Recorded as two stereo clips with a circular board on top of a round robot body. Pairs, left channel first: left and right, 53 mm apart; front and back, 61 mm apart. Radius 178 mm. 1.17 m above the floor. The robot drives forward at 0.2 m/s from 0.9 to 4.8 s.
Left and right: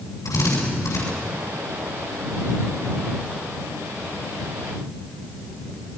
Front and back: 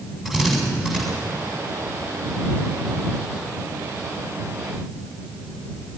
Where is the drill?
100° left, 7.5 m.